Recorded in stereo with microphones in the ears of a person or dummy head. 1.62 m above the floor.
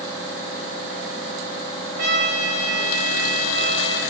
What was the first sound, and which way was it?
A trumpet, 75° right (ahead or behind).